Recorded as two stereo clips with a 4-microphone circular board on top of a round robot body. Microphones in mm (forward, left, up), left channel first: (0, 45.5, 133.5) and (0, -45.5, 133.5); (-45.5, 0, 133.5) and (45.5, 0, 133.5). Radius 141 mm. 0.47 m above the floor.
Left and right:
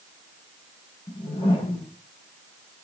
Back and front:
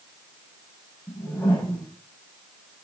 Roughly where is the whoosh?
Left.